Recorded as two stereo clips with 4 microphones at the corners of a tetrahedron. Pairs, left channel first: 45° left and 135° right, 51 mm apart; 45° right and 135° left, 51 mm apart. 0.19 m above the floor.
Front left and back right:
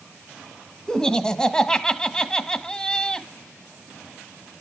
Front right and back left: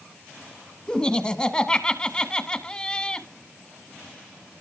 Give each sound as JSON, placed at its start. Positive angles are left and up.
{"t": 0.9, "sound": "laughter", "azimuth_deg": -10, "distance_m": 1.3}